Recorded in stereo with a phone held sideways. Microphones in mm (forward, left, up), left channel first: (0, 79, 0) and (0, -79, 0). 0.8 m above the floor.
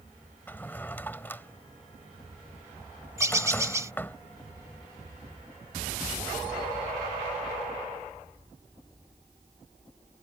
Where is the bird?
20° right (ahead or behind).